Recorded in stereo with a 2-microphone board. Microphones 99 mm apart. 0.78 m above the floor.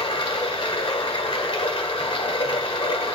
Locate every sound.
0.0 s running water: 65° left (ahead or behind), 1.6 m